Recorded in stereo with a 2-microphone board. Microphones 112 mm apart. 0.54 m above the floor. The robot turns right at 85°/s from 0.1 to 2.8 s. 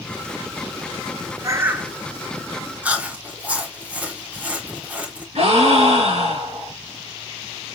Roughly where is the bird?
Ahead right.